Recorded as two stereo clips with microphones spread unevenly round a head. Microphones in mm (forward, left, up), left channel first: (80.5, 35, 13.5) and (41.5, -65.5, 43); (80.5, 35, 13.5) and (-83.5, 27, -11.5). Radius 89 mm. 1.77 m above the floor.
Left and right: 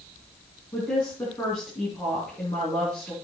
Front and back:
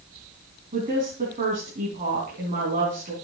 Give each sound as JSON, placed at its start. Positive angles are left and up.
{"t": 0.7, "sound": "a woman speaking", "azimuth_deg": 140, "distance_m": 3.5}